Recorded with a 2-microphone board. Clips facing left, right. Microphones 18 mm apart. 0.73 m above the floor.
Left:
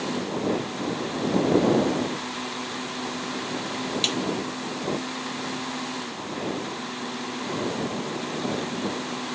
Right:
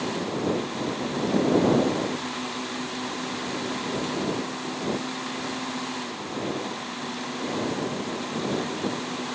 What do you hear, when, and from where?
4.0 s a snare drum: 85° left